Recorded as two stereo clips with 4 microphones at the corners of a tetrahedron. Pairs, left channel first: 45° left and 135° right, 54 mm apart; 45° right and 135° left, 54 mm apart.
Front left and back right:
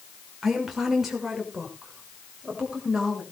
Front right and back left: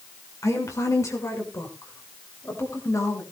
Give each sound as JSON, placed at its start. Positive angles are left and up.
{"t": 0.4, "sound": "a woman speaking", "azimuth_deg": -50, "distance_m": 6.0}